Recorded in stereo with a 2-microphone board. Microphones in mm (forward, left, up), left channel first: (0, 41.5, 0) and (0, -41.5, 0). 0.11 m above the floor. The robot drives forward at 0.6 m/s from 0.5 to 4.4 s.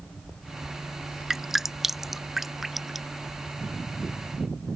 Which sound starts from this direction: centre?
Dripping, at 1.3 s.